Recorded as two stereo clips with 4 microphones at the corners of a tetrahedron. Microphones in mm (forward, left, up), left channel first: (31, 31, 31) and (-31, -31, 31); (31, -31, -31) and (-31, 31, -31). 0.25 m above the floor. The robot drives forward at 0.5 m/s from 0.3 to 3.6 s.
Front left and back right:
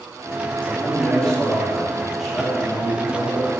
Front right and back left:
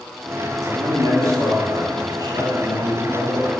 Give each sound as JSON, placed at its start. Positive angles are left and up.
{"t": 0.6, "sound": "a man speaking", "azimuth_deg": 115, "distance_m": 2.0}